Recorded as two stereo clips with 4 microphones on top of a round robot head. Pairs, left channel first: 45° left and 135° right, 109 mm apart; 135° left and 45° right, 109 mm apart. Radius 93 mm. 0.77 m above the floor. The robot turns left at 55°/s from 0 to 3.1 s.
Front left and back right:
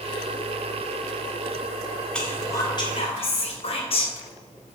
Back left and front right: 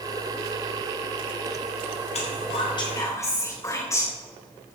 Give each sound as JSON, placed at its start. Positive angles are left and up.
{"t": 2.1, "sound": "whispering", "azimuth_deg": 125, "distance_m": 3.5}